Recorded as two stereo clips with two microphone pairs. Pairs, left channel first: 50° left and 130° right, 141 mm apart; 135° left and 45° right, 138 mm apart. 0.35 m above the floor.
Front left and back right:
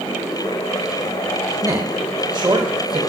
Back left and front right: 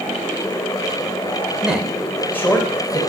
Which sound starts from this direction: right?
A man speaking, at 1.6 s.